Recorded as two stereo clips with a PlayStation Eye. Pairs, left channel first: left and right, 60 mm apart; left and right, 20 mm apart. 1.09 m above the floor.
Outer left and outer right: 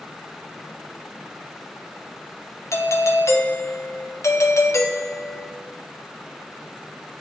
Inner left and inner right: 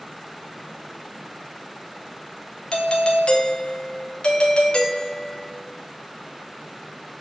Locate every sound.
2.7 s a doorbell: 50° left (ahead or behind), 0.9 m